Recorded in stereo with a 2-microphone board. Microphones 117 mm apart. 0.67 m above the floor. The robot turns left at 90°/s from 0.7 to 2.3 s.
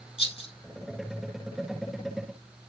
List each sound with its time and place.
0.2 s a rattle: 55° left (ahead or behind), 3 m